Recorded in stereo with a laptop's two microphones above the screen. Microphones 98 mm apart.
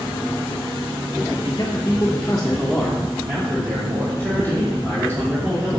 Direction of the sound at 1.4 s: 40° left (ahead or behind).